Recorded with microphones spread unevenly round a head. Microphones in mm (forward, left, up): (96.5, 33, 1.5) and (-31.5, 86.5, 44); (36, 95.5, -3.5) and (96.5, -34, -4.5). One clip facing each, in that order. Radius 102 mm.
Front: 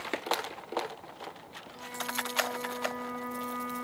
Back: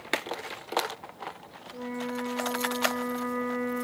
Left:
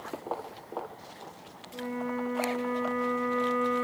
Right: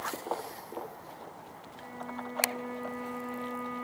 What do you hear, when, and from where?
1.7 s a flute: 140° left, 2 m